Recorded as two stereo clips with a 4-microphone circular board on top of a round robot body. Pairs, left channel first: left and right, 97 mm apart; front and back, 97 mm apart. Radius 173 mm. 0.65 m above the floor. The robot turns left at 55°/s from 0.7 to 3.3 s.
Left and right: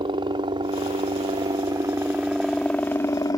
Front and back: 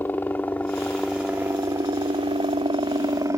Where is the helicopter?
70° right; by 3.4 s 130° left.